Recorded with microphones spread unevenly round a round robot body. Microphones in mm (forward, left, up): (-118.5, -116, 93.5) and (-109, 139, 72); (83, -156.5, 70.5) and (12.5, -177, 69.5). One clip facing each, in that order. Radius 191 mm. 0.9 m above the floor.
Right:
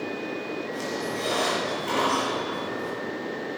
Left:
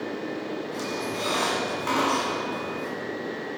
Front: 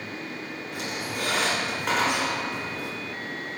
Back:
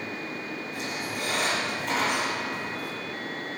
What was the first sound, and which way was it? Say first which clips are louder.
A squeak: even, front 3 dB; 50° left.